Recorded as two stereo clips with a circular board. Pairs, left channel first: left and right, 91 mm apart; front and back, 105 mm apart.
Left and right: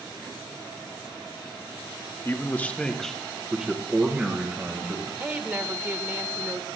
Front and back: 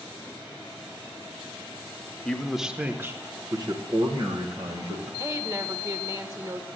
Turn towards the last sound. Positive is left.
turn(degrees=-145)